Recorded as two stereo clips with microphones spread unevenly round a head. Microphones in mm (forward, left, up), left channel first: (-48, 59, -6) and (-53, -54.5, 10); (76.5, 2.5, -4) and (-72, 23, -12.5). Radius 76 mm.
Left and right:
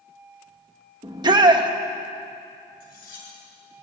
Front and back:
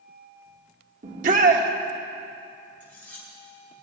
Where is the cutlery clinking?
75° left, 9 m.